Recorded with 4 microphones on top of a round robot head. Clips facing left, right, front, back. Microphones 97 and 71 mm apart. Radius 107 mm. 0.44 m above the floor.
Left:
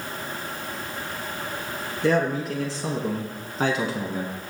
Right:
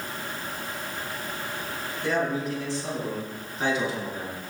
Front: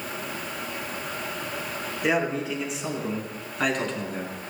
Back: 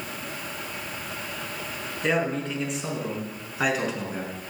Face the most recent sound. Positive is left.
turn(degrees=100)